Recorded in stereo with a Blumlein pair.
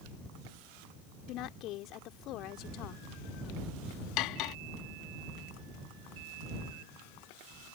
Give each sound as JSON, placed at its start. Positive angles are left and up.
{"t": 1.3, "sound": "a woman speaking", "azimuth_deg": 35}
{"t": 4.2, "sound": "cutlery clinking", "azimuth_deg": 40}